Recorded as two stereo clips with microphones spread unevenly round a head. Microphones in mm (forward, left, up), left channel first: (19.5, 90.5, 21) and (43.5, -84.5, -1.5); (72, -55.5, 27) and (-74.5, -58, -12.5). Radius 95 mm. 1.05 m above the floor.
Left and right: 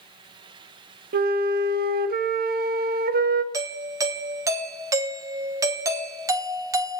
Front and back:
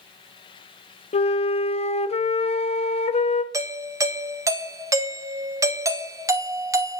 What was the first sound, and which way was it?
A flute, 45° right.